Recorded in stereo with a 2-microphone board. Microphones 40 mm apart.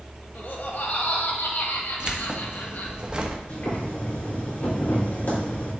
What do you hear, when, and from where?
0.3 s laughter: 55° left (ahead or behind), 1.3 m
2.0 s keys jangling: 25° right (ahead or behind), 0.9 m
3.5 s boiling: 45° left (ahead or behind), 4 m